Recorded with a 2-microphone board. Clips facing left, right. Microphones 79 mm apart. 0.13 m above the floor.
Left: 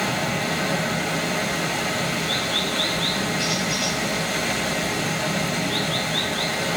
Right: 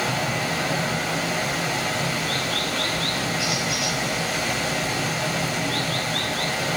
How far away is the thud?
No thud in this recording.